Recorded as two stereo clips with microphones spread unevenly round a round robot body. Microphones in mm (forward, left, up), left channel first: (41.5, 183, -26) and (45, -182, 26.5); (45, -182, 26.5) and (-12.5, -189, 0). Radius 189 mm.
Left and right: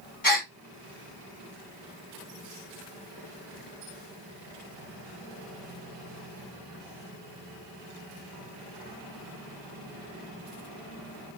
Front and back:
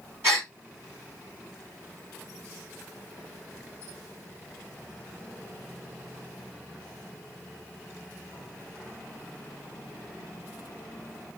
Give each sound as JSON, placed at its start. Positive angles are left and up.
{"t": 0.2, "sound": "a gasp", "azimuth_deg": 155, "distance_m": 2.5}